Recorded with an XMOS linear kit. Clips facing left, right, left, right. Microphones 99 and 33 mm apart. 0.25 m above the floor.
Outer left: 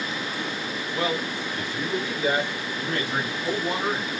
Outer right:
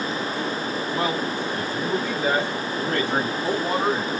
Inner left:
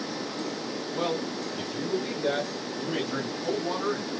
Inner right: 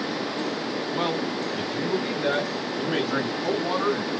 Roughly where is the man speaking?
Right.